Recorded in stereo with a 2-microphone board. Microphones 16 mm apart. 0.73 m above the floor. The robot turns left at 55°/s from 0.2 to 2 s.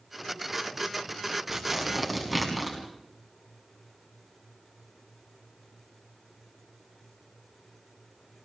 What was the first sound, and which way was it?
Tearing paper, 30° right (ahead or behind).